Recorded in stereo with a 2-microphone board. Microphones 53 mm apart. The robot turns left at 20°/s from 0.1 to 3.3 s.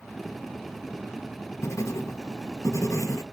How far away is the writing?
About 0.7 m.